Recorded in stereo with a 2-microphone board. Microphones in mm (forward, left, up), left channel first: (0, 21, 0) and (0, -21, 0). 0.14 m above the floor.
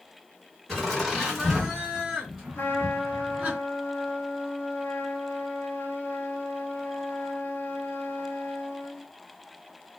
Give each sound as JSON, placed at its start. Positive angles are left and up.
{"t": 0.7, "sound": "laughter", "side_deg": 10, "distance_m": 2.0}
{"t": 2.5, "sound": "a trumpet", "side_deg": 55, "distance_m": 1.4}